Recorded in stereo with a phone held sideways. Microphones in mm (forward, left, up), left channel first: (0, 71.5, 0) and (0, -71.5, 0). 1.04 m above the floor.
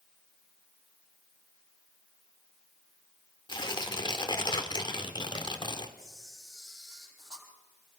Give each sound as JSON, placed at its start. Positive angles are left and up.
{"t": 3.5, "sound": "tearing paper", "side_deg": 35, "distance_m": 1.7}
{"t": 6.0, "sound": "a camera shutter", "side_deg": 5, "distance_m": 7.0}